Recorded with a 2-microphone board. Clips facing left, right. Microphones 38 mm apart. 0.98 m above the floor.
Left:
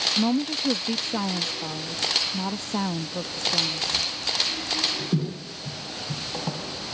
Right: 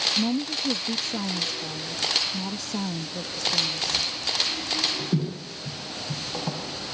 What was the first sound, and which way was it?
A woman speaking, 35° left (ahead or behind).